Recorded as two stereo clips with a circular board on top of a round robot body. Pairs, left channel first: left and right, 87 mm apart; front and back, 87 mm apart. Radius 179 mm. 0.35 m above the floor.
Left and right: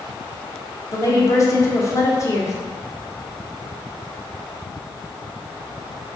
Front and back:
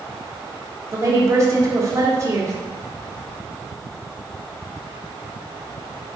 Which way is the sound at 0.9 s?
130° left.